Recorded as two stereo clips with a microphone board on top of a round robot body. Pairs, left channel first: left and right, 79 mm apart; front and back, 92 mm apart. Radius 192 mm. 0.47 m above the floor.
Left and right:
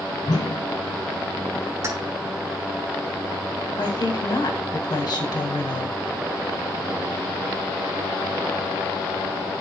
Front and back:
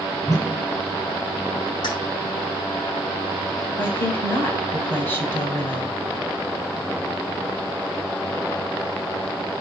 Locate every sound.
0.2 s a whoosh: 55° left, 2 m
1.8 s keys jangling: 35° right, 3.5 m
3.8 s a woman speaking: 65° left, 3.5 m